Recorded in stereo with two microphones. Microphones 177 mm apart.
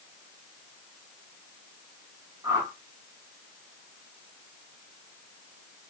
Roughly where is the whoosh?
Centre.